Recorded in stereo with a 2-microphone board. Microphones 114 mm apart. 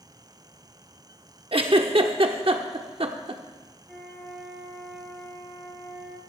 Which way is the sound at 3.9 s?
5° left (ahead or behind).